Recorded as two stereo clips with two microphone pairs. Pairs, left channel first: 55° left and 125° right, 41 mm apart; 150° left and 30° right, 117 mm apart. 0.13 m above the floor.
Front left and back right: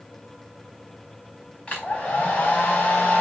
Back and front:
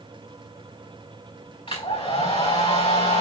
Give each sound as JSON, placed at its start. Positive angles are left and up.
{"t": 1.7, "sound": "a hair dryer", "azimuth_deg": 115, "distance_m": 4.5}